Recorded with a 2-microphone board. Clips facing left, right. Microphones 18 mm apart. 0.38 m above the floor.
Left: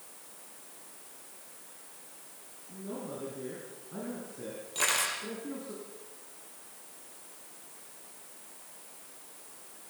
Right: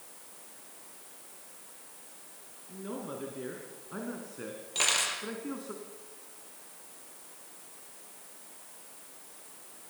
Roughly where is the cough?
I don't hear a cough.